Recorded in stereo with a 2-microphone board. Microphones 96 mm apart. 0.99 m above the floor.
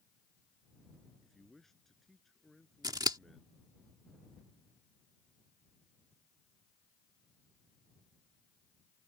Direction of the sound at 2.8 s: 45° right (ahead or behind).